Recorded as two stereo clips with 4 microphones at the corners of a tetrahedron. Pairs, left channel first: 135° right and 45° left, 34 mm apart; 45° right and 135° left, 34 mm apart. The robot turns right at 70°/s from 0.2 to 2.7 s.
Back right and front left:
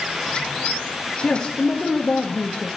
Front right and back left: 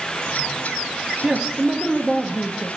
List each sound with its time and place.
1.2 s a man speaking: 170° left, 0.6 m; by 2.7 s 90° right, 0.6 m